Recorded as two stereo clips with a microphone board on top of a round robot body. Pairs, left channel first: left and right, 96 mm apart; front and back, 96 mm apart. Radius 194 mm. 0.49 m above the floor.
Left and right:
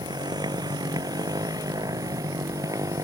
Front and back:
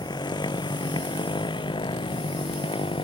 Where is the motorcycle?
45° right; by 3.0 s 35° right.